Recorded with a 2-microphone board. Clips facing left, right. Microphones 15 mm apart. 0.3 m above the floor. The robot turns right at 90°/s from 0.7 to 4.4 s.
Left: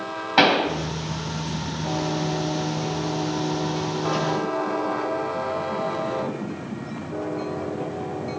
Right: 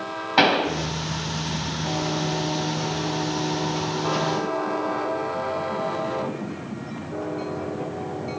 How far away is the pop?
About 2 m.